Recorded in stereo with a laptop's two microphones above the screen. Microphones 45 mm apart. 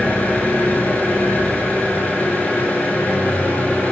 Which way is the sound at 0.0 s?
35° left (ahead or behind).